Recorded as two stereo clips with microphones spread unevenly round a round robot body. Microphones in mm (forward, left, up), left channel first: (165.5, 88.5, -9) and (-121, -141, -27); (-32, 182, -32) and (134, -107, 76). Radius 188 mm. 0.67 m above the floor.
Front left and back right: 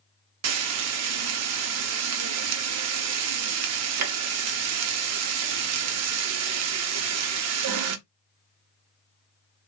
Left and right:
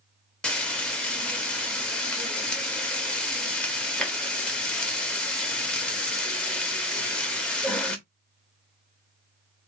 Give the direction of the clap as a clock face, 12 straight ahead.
No clap in this recording.